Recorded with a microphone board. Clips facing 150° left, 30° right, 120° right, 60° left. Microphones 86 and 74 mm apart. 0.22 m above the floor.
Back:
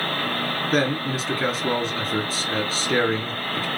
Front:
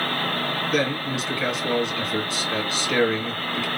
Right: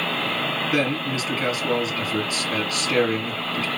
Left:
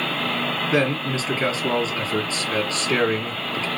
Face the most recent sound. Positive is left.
turn(degrees=110)